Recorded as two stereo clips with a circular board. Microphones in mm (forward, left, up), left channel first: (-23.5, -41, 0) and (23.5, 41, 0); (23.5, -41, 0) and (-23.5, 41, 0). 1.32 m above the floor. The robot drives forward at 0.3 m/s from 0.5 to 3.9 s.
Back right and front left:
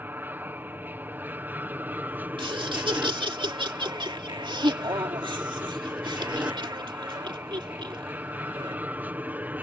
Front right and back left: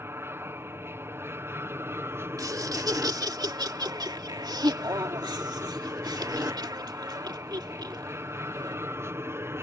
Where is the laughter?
75° left; by 8.8 s 85° left.